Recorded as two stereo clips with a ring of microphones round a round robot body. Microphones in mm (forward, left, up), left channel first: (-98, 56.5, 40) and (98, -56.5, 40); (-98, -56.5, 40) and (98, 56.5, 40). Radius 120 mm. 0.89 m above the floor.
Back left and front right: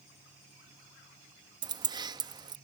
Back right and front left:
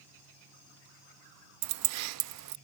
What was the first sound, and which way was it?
Keys jangling, 40° left.